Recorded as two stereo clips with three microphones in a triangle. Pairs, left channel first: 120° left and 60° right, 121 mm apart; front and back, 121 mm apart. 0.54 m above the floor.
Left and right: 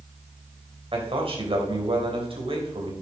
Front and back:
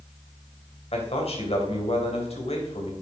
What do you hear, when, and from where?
0.9 s a man speaking: 25° right, 3 m